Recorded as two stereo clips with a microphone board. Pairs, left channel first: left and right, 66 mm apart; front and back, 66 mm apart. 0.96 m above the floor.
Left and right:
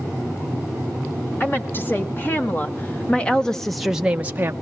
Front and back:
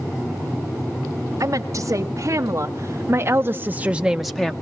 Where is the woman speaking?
145° left, 1.9 m; by 4.5 s 70° right, 0.7 m.